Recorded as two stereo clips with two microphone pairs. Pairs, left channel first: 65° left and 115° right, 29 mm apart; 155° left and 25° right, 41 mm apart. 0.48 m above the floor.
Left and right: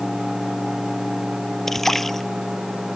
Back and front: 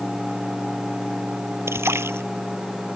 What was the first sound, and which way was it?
A splash, 15° right.